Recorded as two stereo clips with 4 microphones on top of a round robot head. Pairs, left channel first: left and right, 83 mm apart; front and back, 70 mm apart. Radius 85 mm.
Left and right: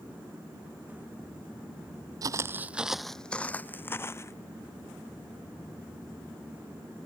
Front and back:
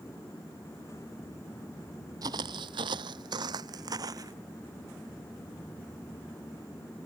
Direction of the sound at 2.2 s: 135° right.